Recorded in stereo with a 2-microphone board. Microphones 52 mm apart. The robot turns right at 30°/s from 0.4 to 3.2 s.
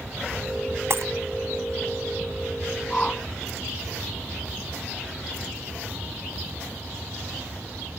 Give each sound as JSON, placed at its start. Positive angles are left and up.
{"t": 0.9, "sound": "breaking glass", "side_deg": -55}
{"t": 2.9, "sound": "a whoosh", "side_deg": 15}